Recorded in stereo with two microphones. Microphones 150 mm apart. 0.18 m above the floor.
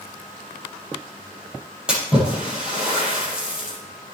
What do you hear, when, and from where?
1.9 s a splash: 5° right (ahead or behind), 6 m